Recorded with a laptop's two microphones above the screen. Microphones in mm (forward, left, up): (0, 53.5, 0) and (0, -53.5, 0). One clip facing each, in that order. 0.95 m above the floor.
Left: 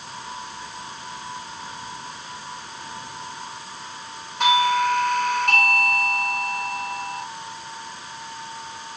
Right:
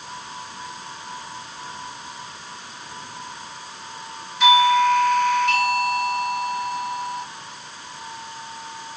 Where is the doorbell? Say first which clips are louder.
Right 4 dB; 60° left (ahead or behind), 2 m.